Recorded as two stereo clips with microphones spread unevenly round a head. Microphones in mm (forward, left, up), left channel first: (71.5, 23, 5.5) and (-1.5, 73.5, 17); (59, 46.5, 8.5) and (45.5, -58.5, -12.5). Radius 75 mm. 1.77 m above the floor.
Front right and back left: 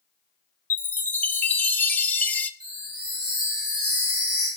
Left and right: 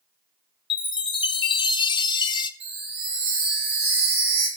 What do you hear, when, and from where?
0.7 s a chime: 35° left, 0.6 m
2.6 s a chime: 150° right, 3.5 m